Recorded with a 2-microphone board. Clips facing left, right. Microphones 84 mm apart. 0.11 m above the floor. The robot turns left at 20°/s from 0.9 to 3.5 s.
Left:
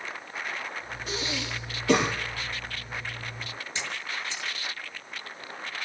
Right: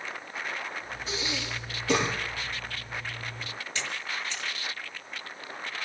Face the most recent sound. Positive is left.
turn(degrees=20)  # may be behind; listen again after turning